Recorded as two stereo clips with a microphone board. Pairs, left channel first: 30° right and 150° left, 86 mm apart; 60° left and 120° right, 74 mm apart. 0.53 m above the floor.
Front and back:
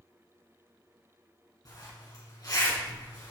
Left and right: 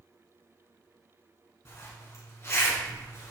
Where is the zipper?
10° left, 3.5 m.